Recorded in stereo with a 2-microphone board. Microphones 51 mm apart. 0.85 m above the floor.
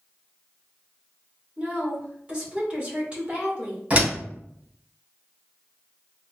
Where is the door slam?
25° right (ahead or behind), 2.5 m.